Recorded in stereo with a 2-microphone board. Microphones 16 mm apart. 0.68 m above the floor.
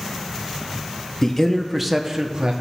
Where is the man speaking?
30° left (ahead or behind), 0.9 m; by 2.5 s 45° right (ahead or behind), 1.1 m.